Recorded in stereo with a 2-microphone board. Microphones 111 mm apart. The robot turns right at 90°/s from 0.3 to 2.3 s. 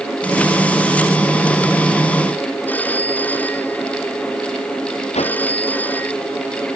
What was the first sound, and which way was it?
A phone ringing, 15° left (ahead or behind).